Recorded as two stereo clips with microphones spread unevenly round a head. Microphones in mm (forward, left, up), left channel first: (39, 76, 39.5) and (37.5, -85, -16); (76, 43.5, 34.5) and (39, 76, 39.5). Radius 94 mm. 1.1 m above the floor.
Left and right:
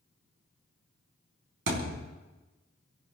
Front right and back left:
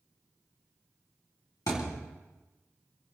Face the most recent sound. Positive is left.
turn(degrees=-80)